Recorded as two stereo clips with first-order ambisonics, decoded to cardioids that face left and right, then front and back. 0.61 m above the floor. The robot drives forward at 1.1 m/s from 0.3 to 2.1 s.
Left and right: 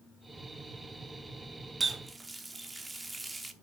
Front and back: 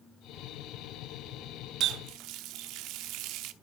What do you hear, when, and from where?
1.8 s a running tap: 160° right, 0.5 m; by 3.5 s 170° right, 0.8 m